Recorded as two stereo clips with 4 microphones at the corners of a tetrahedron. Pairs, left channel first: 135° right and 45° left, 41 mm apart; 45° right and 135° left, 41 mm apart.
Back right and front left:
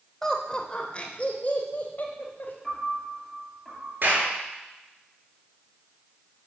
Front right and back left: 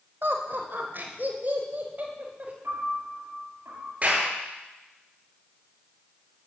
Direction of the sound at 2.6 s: 135° left.